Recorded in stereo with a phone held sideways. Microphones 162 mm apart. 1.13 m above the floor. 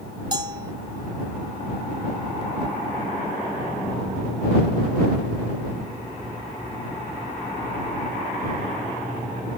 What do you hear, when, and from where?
0.3 s a bell: 30° right (ahead or behind)